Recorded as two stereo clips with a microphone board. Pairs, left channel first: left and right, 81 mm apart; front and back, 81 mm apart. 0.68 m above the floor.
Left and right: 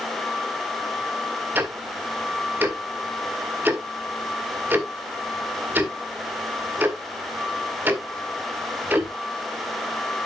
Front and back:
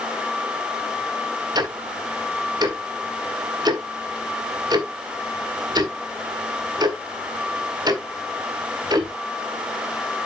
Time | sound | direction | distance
1.6 | ticking | 155° right | 1.6 m